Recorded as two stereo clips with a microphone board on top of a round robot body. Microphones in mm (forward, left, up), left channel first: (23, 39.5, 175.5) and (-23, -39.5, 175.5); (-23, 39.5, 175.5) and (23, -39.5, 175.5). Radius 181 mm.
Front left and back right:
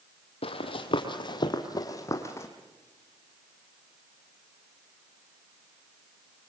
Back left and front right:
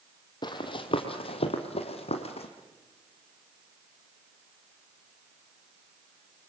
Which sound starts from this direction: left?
Running footsteps, at 0.4 s.